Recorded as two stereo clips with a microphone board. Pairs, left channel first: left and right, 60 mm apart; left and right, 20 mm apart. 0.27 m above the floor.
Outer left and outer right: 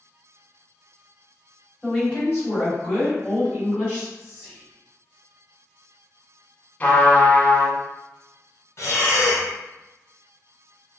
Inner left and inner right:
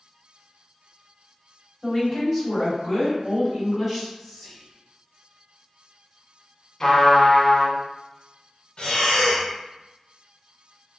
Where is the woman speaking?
Centre (ahead or behind), 1.7 m; by 4.1 s 35° right (ahead or behind), 2 m.